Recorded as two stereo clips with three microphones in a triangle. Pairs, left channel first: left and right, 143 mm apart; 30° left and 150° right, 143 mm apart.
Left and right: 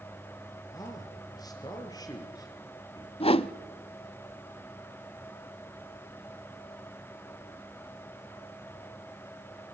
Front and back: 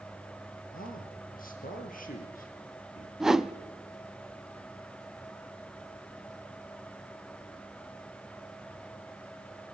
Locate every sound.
0.7 s a man speaking: 30° left, 4.5 m
3.2 s a whoosh: 125° left, 0.6 m